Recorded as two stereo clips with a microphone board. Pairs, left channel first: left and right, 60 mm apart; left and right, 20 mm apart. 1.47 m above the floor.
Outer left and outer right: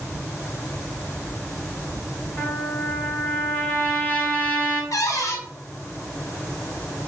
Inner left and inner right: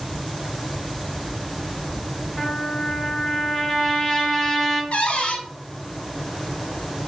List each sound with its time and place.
2.4 s a trumpet: 35° left (ahead or behind), 1.7 m
4.9 s a cupboard door: 65° left (ahead or behind), 0.7 m